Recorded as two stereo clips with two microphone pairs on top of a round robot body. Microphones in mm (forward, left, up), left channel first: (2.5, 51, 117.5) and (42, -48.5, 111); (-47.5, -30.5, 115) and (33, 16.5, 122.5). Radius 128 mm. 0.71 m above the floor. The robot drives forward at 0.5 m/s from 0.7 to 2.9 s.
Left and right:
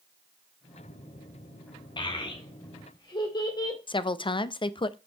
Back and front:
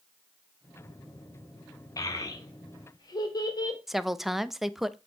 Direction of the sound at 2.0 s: 160° left.